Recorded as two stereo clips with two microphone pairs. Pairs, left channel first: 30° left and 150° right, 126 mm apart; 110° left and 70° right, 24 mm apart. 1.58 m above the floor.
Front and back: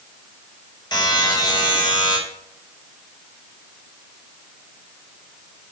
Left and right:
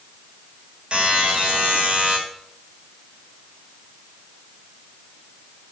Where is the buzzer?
25° right, 4.5 m.